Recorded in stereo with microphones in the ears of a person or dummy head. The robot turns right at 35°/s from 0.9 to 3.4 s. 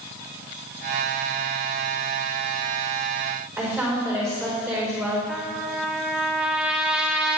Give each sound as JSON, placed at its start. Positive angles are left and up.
{"t": 3.6, "sound": "a woman speaking", "side_deg": -15, "distance_m": 5.0}
{"t": 5.3, "sound": "a trumpet", "side_deg": -5, "distance_m": 0.5}